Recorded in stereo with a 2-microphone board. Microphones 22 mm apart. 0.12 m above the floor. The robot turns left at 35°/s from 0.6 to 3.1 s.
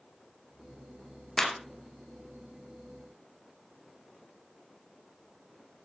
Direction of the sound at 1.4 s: 15° left (ahead or behind).